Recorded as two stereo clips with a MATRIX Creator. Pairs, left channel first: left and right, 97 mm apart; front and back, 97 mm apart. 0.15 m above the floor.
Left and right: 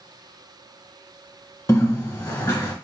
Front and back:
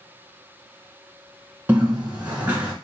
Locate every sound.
1.7 s a bird: 110° left, 1.5 m